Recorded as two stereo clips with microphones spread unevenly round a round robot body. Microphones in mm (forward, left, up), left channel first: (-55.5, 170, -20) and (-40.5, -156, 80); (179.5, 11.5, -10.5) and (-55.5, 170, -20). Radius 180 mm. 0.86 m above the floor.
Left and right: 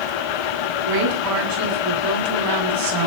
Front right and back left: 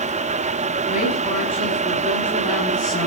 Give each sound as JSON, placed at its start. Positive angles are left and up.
{"t": 0.9, "sound": "a woman speaking", "azimuth_deg": -110, "distance_m": 9.0}